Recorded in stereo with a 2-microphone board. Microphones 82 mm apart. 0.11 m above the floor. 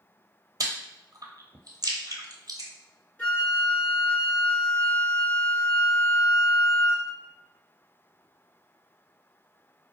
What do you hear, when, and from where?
0.6 s chewing: 50° right (ahead or behind), 0.8 m
3.2 s a flute: 15° left (ahead or behind), 1.8 m